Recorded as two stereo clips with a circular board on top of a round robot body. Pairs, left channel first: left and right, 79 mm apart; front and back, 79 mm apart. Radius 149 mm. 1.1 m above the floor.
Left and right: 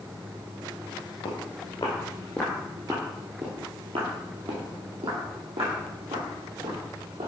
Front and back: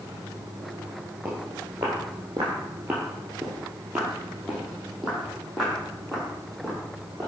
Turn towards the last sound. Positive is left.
turn(degrees=-85)